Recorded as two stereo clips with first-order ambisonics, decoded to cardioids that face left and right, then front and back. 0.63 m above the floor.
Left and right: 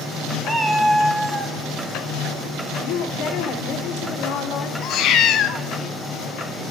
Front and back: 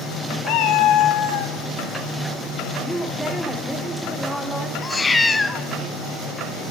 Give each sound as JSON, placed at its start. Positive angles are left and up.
{"t": 0.5, "sound": "a cat meowing", "azimuth_deg": 0, "distance_m": 1.2}
{"t": 2.8, "sound": "a woman speaking", "azimuth_deg": 90, "distance_m": 1.9}
{"t": 4.8, "sound": "a cat meowing", "azimuth_deg": 75, "distance_m": 0.6}